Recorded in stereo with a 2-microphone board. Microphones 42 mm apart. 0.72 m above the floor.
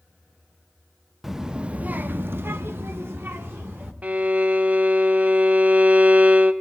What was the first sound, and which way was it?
A child speaking, 5° right (ahead or behind).